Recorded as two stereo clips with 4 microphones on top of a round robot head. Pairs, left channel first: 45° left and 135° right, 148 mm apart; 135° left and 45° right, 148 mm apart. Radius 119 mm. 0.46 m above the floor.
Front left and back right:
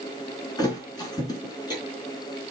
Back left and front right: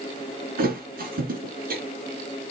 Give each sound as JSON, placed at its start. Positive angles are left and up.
{"t": 0.6, "sound": "a thud", "azimuth_deg": -20, "distance_m": 3.5}